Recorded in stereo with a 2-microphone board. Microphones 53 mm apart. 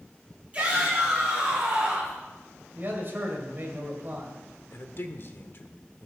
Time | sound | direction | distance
0.5 | a shout | 25° right (ahead or behind) | 7 m
2.8 | a man speaking | 45° right (ahead or behind) | 2.5 m
4.7 | a man speaking | 50° left (ahead or behind) | 1.0 m